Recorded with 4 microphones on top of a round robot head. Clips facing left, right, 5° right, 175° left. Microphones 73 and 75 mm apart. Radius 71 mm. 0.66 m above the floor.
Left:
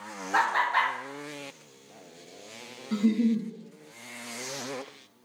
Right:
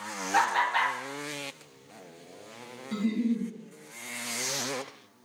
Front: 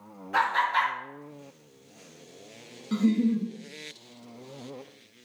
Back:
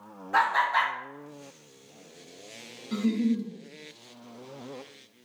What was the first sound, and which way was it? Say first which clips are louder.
Laughter: left 1 dB, back 1 dB; 135° left.